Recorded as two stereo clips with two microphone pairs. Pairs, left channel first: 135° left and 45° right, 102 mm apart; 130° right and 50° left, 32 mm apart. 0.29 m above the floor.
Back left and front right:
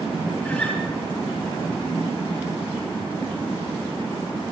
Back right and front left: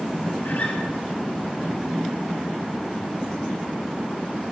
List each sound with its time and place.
0.5 s a guitar: 150° right, 5 m